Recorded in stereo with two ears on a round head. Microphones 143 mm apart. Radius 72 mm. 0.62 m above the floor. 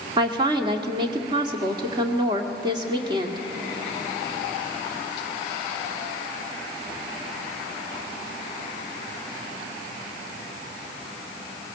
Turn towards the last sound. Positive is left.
turn(degrees=-30)  # may be behind; listen again after turning